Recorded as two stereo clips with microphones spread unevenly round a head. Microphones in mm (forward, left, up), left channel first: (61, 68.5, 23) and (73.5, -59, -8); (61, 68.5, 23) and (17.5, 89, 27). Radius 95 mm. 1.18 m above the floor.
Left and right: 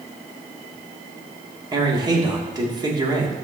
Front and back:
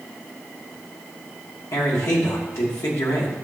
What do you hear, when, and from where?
1.7 s a man speaking: 25° right, 2.5 m